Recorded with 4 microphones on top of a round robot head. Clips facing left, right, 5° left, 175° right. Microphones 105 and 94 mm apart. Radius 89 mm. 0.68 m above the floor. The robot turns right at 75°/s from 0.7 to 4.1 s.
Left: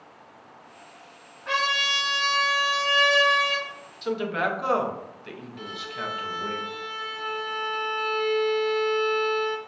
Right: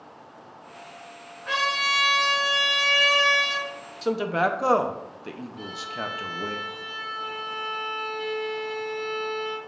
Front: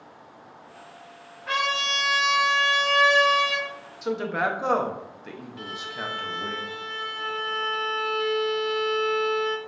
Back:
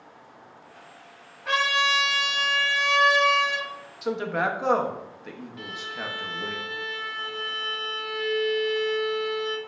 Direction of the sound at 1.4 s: 175° right.